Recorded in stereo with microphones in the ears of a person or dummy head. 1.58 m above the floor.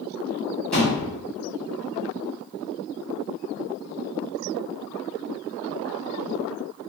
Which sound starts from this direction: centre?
A thud, at 0.7 s.